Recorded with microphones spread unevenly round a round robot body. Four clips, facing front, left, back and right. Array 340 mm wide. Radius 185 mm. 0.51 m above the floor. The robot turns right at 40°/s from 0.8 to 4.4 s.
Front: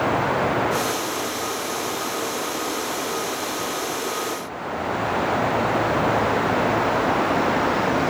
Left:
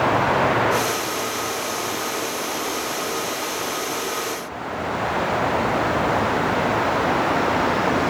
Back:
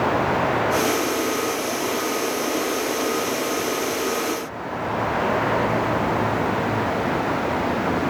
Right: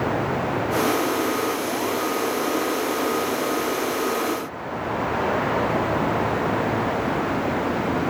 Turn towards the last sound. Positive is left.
No sound to turn to.